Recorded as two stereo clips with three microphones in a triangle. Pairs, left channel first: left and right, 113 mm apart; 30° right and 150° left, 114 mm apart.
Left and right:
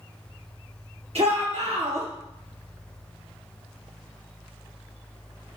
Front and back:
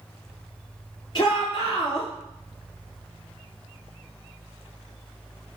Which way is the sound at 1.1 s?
70° right.